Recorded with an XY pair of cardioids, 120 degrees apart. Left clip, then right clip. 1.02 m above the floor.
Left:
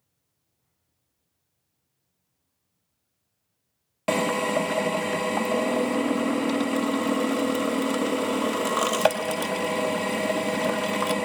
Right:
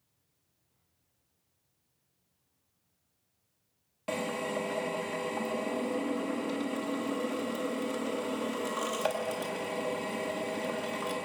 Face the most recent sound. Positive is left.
turn(degrees=60)